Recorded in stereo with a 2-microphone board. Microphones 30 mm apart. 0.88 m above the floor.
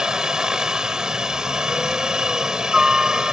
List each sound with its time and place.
0.0 s a helicopter: 20° right (ahead or behind)